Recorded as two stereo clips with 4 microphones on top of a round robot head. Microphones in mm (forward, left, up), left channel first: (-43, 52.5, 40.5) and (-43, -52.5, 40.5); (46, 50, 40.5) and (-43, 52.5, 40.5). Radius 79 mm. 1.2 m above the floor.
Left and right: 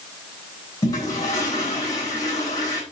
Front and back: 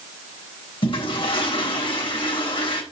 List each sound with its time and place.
0.8 s a toilet flushing: 25° left, 3.5 m